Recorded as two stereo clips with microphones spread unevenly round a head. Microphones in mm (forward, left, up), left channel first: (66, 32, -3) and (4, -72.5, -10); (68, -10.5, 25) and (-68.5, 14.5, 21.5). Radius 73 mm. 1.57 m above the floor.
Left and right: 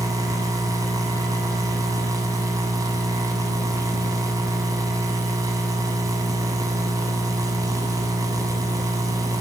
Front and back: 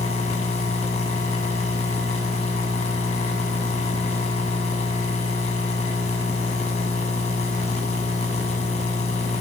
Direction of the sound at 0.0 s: 60° right.